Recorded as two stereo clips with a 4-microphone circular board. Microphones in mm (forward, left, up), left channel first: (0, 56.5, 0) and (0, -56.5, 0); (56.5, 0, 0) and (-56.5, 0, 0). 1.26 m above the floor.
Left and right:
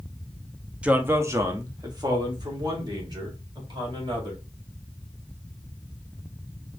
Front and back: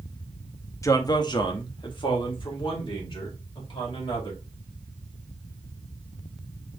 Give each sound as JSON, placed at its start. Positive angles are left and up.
{"t": 0.8, "sound": "a man speaking", "azimuth_deg": -20, "distance_m": 0.6}